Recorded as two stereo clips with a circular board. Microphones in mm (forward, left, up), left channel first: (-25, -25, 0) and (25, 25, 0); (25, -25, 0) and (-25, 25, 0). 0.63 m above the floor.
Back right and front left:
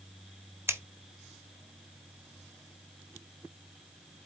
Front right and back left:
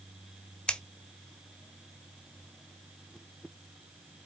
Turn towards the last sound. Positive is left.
turn(degrees=20)